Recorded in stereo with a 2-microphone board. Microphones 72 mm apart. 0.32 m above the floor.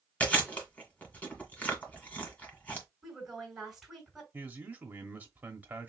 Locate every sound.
0.2 s chewing: 20° left (ahead or behind), 2.0 m
3.0 s a woman speaking: 5° right (ahead or behind), 3.5 m
4.3 s a man speaking: 25° right (ahead or behind), 1.1 m